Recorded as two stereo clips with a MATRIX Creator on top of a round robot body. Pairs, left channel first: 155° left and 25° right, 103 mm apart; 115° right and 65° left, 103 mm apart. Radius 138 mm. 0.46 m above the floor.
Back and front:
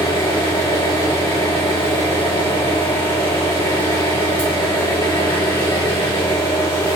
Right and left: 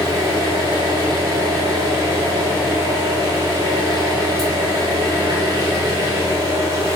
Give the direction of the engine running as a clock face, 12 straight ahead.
8 o'clock.